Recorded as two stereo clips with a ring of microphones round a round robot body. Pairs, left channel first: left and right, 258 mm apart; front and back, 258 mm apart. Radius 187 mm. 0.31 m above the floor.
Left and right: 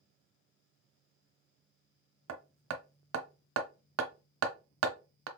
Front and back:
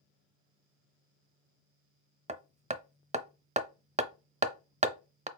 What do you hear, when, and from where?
2.3 s hammering: 115° right, 0.7 m